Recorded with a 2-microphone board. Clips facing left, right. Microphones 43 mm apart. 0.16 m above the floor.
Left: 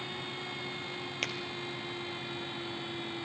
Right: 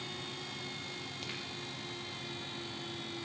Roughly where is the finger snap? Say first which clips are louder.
Left 9 dB; left.